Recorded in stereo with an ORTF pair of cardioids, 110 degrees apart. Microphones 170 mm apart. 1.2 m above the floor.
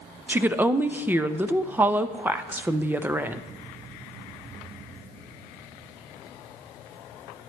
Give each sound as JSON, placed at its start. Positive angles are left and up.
{"t": 0.3, "sound": "a woman speaking", "azimuth_deg": -10, "distance_m": 0.6}